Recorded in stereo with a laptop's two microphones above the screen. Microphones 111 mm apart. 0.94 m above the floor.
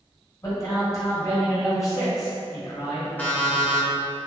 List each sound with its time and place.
0.4 s a man speaking: 30° left (ahead or behind), 1.2 m
3.2 s an alarm clock: 15° left (ahead or behind), 0.5 m